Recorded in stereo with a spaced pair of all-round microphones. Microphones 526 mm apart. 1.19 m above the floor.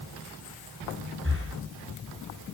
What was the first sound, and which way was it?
Breathing, 25° right (ahead or behind).